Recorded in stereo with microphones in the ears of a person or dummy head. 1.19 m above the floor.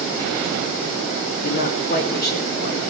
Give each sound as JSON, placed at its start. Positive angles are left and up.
{"t": 1.4, "sound": "a man speaking", "side_deg": 50, "distance_m": 2.5}